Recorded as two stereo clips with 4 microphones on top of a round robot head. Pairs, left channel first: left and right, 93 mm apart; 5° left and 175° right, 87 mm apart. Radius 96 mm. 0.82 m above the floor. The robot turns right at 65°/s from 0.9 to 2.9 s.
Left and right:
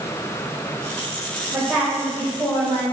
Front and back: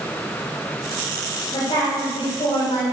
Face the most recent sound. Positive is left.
turn(degrees=70)